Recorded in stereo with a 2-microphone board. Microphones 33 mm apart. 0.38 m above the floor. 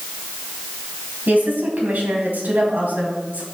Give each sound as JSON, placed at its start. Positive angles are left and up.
{"t": 1.3, "sound": "a woman speaking", "side_deg": -70, "distance_m": 2.0}